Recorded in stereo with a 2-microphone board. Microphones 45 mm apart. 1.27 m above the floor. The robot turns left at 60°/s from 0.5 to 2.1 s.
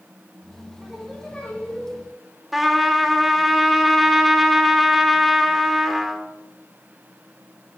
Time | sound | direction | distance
0.8 | singing | 155° right | 7.5 m
2.5 | a trumpet | 5° right (ahead or behind) | 1.9 m